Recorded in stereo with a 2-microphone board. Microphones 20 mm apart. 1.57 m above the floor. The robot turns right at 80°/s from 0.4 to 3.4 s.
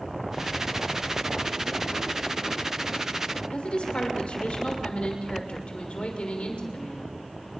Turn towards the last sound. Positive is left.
turn(degrees=70)  # may be behind; listen again after turning